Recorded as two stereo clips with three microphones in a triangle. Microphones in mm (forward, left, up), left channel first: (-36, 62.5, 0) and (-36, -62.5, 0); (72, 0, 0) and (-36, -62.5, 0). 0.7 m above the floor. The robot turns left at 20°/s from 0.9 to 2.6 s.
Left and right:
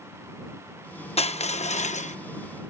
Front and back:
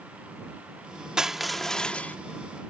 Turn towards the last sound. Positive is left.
turn(degrees=95)